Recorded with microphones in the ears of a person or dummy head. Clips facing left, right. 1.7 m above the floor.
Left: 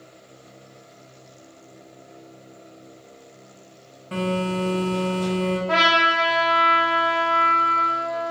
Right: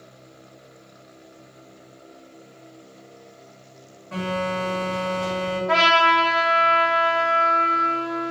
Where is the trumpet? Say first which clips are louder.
Right 2 dB; 10° right (ahead or behind), 0.6 m.